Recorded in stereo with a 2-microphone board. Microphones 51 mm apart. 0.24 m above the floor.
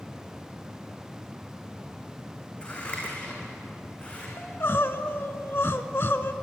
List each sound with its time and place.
2.6 s scissors: 25° left (ahead or behind), 5.5 m
4.4 s crying: 55° left (ahead or behind), 1.1 m